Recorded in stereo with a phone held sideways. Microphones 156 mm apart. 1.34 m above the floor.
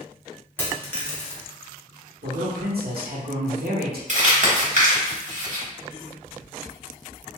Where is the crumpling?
50° right (ahead or behind), 1.1 m.